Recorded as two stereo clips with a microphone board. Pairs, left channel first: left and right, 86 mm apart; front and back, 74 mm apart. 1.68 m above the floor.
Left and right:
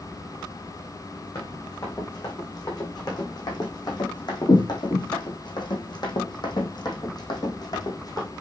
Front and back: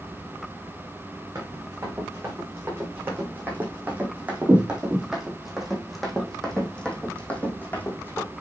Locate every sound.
1.4 s running footsteps: 130° left, 5 m; by 8.3 s 55° left, 3.5 m